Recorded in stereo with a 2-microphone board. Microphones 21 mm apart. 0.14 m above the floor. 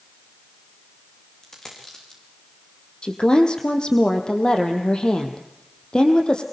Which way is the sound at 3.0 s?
45° left (ahead or behind).